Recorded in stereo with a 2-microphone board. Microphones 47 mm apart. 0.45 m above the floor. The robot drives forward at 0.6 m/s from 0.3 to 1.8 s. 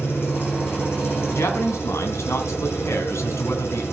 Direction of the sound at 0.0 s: 55° left (ahead or behind).